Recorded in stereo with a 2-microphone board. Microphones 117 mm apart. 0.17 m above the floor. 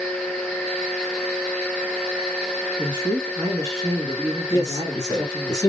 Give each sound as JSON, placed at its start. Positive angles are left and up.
{"t": 2.8, "sound": "a man speaking", "side_deg": -30, "distance_m": 1.9}
{"t": 4.5, "sound": "a man speaking", "side_deg": 30, "distance_m": 2.0}